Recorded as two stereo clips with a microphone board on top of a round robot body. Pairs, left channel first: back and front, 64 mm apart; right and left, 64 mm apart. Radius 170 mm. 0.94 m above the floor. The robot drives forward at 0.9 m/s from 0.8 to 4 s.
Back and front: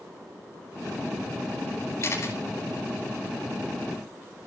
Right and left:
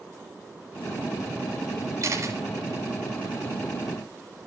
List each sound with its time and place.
2.0 s a camera shutter: 130° left, 5.5 m; by 2.4 s 135° left, 5.5 m